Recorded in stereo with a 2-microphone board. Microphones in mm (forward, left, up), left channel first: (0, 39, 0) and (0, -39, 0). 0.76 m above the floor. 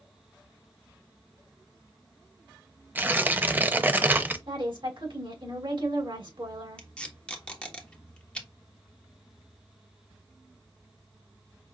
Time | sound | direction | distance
3.0 | tearing paper | 20° right (ahead or behind) | 0.6 m
4.5 | a woman speaking | 75° right (ahead or behind) | 3 m
6.8 | tape being pulled | 10° left (ahead or behind) | 1.2 m